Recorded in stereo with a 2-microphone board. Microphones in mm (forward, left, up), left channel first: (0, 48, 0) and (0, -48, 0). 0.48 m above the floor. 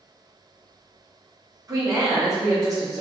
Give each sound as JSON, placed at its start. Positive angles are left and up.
{"t": 1.7, "sound": "a woman speaking", "side_deg": -35, "distance_m": 1.1}